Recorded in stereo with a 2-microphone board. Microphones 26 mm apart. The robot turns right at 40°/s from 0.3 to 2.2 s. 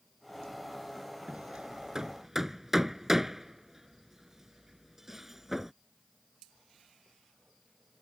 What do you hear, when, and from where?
1.3 s hammering: 50° right (ahead or behind); by 5.7 s 15° right (ahead or behind)